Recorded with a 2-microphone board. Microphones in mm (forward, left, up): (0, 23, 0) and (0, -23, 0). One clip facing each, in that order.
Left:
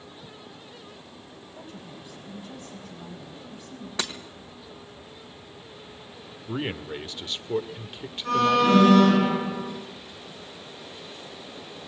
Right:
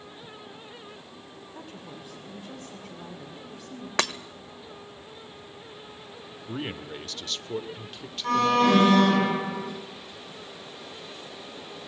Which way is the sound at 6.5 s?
20° left (ahead or behind).